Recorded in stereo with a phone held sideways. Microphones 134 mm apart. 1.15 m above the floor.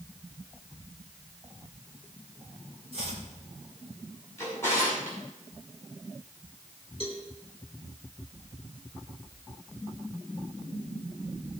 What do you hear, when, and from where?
2.9 s chopping: 50° right (ahead or behind), 3.5 m
4.4 s a drawer: 20° left (ahead or behind), 6 m
7.0 s a cowbell: 50° right (ahead or behind), 2.5 m